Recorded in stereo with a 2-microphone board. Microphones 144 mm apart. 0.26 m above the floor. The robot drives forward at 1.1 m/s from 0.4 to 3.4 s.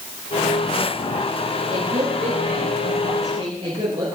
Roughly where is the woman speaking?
Right.